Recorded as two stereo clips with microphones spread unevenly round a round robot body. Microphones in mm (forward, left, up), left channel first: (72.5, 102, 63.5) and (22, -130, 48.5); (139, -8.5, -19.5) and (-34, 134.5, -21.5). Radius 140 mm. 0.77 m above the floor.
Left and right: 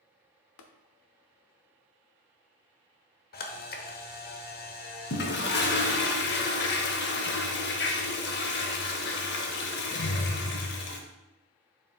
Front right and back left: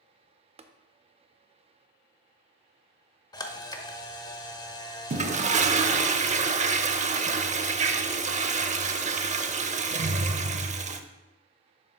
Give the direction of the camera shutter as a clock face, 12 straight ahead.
11 o'clock.